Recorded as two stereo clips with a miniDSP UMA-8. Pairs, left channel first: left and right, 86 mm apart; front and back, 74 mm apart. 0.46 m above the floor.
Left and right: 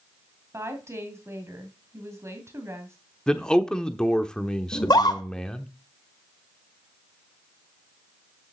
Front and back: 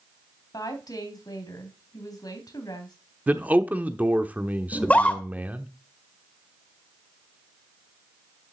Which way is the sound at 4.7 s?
65° left.